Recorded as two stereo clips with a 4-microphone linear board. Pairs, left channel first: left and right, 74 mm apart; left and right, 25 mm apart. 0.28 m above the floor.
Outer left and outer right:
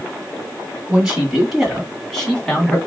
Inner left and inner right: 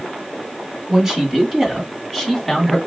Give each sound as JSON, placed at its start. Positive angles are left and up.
{"t": 0.9, "sound": "a man speaking", "side_deg": -10, "distance_m": 2.5}